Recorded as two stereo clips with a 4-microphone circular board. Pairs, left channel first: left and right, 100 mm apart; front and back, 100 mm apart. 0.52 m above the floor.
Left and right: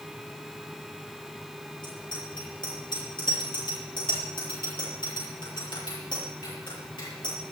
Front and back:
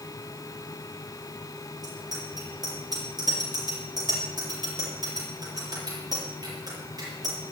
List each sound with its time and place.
1.8 s a bicycle bell: 130° left, 7.5 m